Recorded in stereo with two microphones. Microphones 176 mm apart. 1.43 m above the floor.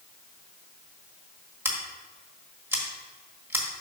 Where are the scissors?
10° right (ahead or behind), 1.3 m.